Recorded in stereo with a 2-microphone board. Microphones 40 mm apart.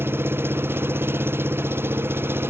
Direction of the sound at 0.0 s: 80° right.